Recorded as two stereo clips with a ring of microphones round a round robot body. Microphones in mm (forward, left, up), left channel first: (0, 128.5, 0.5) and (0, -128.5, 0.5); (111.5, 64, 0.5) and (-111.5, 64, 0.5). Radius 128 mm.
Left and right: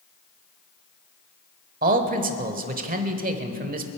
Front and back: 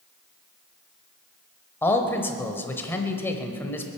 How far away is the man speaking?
About 1.2 m.